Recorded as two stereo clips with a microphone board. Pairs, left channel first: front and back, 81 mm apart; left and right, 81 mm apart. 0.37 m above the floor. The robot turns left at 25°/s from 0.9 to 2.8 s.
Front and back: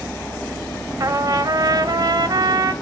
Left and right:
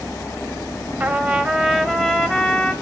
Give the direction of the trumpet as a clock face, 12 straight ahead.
5 o'clock.